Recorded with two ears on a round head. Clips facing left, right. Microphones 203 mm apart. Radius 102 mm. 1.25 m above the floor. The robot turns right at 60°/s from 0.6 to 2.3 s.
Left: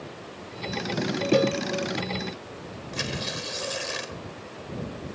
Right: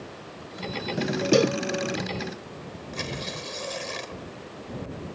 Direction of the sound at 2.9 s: 10° left (ahead or behind).